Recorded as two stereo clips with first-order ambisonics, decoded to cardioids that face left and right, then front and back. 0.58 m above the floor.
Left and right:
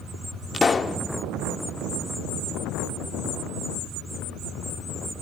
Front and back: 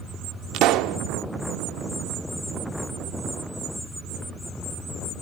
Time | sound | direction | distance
0.5 | a pop | 160° left | 0.9 m